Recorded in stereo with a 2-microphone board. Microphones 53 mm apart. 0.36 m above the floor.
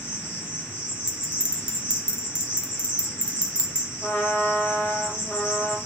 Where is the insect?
35° left (ahead or behind), 2 m.